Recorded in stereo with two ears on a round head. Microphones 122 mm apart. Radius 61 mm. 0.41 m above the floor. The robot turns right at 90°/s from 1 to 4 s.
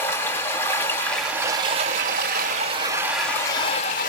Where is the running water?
160° left, 1.8 m; by 4.1 s 70° left, 1.8 m.